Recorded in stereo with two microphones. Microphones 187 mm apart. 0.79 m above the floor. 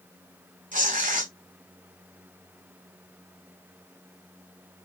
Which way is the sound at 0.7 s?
45° right (ahead or behind).